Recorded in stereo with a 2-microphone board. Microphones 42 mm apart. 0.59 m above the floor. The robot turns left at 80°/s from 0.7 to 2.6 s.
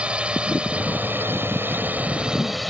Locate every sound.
0.0 s a drone: 25° right (ahead or behind); by 2.7 s centre (ahead or behind)